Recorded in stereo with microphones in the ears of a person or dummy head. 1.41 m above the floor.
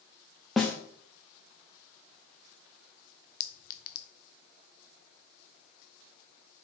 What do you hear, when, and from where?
0.6 s a snare drum: centre (ahead or behind), 0.8 m
3.4 s a clink: 45° left (ahead or behind), 0.5 m